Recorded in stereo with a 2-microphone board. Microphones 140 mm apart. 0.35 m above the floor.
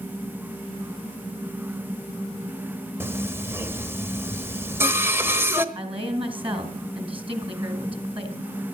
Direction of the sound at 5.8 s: 40° right (ahead or behind).